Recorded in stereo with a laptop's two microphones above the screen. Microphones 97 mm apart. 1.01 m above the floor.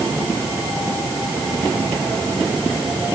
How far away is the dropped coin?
I don't hear a dropped coin.